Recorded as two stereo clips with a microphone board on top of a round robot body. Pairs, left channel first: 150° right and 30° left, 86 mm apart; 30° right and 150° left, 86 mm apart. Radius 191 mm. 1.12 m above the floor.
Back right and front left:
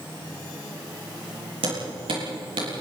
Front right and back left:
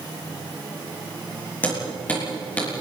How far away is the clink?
No clink in this recording.